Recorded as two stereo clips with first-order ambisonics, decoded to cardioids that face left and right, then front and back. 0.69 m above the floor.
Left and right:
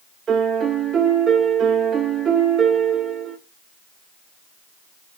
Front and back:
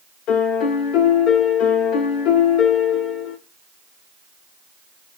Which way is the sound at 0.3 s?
25° right.